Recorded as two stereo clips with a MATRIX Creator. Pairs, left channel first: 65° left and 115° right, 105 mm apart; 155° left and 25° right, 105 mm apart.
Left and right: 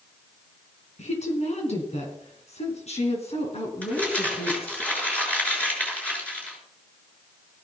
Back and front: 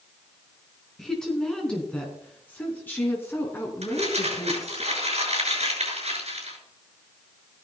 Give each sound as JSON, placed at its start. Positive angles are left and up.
{"t": 1.0, "sound": "a woman speaking", "azimuth_deg": 75, "distance_m": 4.5}
{"t": 3.8, "sound": "crumpling", "azimuth_deg": -10, "distance_m": 6.5}